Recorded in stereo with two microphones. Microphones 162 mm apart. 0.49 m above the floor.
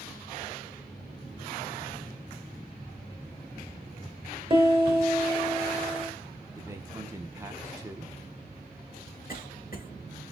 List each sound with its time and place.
4.5 s a piano: 35° right (ahead or behind), 2.5 m
6.5 s a man speaking: 20° right (ahead or behind), 0.7 m
9.3 s a cough: 65° left (ahead or behind), 2 m